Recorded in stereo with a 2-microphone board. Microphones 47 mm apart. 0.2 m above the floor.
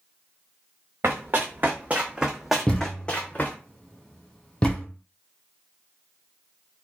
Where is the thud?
20° left (ahead or behind), 1.2 m.